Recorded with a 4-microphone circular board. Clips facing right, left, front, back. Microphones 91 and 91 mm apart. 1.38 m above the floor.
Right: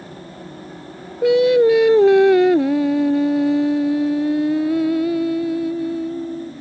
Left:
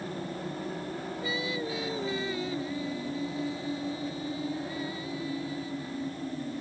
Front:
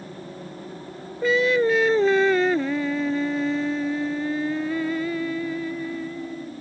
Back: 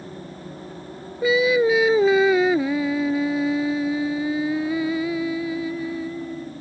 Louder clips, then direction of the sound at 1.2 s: Right 24 dB, back 2 dB; 95° right.